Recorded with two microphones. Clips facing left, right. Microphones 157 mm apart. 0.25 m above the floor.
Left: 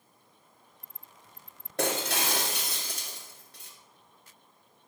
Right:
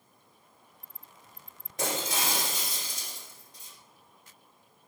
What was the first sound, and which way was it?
Breaking glass, 75° left (ahead or behind).